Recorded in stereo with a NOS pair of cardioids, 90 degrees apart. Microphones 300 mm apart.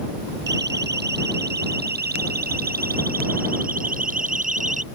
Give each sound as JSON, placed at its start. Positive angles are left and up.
{"t": 0.5, "sound": "a siren", "azimuth_deg": -35}